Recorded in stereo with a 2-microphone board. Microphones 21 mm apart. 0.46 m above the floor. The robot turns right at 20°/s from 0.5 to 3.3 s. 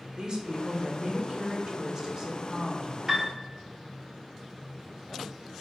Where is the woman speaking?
80° right, 0.9 m; by 3.0 s 30° right, 0.9 m.